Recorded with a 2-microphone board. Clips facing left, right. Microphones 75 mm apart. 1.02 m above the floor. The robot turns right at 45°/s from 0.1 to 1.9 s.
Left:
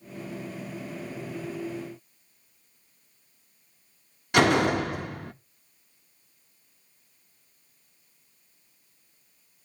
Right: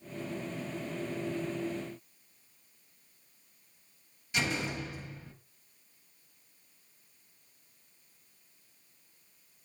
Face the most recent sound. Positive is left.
turn(degrees=65)  # may be behind; listen again after turning